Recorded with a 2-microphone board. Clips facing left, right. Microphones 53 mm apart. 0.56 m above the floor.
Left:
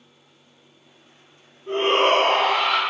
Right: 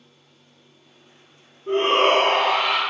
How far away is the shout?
About 1.5 m.